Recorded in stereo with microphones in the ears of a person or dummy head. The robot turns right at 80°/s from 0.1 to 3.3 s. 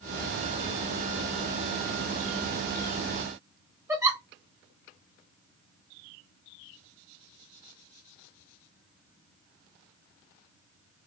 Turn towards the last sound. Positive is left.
turn(degrees=-15)  # may be behind; listen again after turning